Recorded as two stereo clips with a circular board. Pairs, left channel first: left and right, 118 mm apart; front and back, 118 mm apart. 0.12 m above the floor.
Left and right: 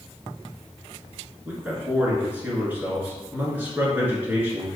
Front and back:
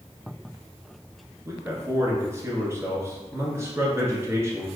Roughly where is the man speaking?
Behind right.